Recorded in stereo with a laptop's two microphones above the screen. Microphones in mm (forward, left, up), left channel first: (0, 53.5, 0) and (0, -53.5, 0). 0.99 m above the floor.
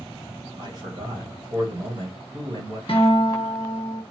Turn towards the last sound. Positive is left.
turn(degrees=55)  # may be behind; listen again after turning